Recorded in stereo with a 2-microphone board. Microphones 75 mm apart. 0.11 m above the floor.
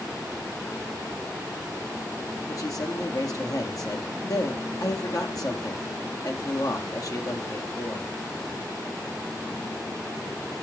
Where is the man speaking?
55° left (ahead or behind), 3 m.